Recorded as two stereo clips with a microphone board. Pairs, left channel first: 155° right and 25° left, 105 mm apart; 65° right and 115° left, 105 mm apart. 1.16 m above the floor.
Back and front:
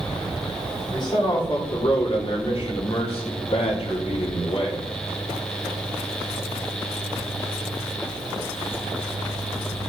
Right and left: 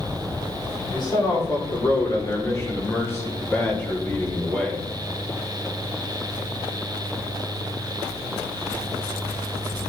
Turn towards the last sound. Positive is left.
turn(degrees=-150)